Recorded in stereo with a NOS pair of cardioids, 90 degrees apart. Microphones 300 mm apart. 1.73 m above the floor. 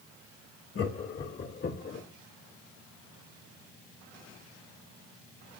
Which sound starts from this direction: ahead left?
Laughter, at 0.8 s.